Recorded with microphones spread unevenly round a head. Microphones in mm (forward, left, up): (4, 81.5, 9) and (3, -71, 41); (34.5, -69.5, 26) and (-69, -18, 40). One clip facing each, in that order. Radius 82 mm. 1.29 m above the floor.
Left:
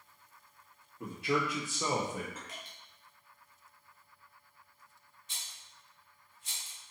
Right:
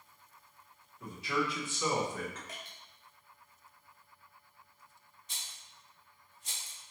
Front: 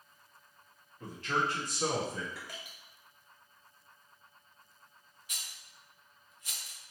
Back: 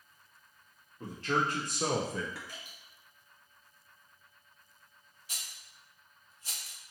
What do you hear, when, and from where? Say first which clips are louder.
1.0 s a man speaking: left 2 dB, back 2 dB; 85° left, 1.0 m; by 2.4 s 165° left, 0.8 m
2.5 s dripping: right 1 dB, front 2 dB; 40° right, 1.3 m
5.3 s a rattle: right 1 dB, even; 145° right, 0.6 m